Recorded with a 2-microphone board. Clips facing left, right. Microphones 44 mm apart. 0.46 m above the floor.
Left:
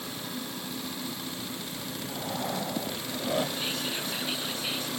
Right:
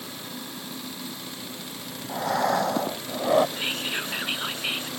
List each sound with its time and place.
2.1 s breathing: 85° right
3.6 s whispering: 45° right (ahead or behind)